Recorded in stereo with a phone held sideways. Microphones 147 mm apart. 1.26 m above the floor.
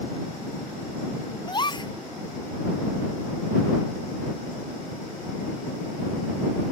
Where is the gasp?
30° left (ahead or behind).